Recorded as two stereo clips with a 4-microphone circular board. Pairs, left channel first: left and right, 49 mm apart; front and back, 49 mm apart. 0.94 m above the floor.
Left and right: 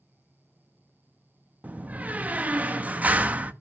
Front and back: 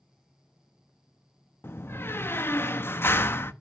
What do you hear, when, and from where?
1.6 s a door slam: 30° right, 1.0 m